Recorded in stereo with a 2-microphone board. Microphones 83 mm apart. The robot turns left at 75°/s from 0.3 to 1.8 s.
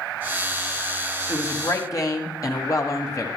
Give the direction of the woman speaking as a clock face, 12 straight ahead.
8 o'clock.